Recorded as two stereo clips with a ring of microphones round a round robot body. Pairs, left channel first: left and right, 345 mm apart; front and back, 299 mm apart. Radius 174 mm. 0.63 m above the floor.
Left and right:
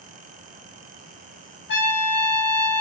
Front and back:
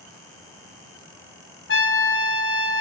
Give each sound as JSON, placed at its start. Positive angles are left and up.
{"t": 1.7, "sound": "a trumpet", "azimuth_deg": 35, "distance_m": 1.0}